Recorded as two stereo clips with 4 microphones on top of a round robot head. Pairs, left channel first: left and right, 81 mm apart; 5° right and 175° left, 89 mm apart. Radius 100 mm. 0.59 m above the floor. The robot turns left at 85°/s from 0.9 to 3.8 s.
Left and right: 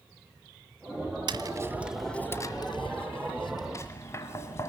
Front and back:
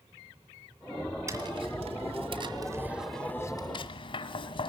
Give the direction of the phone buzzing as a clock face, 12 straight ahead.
I don't hear a phone buzzing.